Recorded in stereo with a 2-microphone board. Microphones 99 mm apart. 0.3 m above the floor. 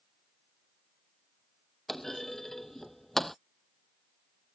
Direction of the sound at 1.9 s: 5° left (ahead or behind).